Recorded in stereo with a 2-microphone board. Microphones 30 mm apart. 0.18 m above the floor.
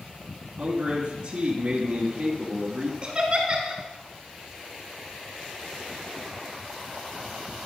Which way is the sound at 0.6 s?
30° right (ahead or behind).